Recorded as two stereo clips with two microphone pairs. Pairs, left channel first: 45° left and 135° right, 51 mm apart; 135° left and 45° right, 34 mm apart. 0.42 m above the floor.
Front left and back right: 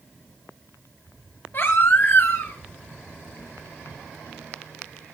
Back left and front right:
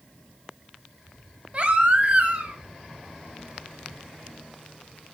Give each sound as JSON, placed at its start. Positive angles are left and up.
{"t": 1.5, "sound": "a baby crying", "azimuth_deg": 5, "distance_m": 1.5}